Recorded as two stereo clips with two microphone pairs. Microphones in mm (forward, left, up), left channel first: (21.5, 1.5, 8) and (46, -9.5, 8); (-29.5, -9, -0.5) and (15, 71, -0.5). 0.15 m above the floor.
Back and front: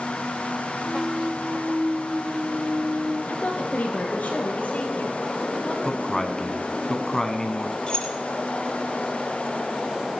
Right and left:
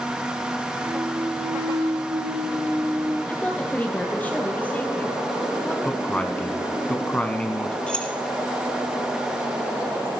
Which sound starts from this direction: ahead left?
A clunk, at 0.8 s.